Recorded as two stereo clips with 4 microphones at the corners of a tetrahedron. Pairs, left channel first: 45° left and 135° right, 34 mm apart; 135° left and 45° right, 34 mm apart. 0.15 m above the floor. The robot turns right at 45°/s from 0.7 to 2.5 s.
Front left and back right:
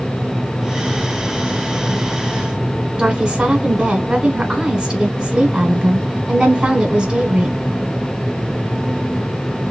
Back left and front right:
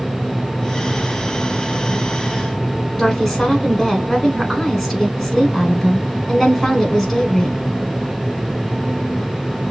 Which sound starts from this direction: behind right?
A woman speaking, at 3.0 s.